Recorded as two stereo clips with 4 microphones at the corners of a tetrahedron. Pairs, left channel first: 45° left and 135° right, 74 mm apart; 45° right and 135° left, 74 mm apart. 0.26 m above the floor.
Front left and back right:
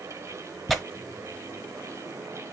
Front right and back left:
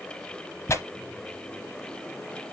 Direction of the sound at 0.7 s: 40° right.